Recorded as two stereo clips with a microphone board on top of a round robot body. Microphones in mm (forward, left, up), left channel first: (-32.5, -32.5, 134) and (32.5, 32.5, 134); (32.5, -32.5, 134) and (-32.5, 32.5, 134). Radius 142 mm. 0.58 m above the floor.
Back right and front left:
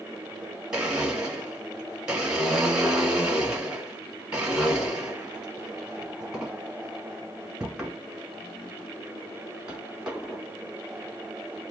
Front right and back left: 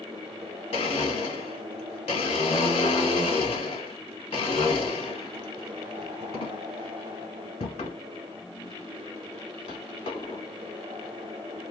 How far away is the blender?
About 1.3 m.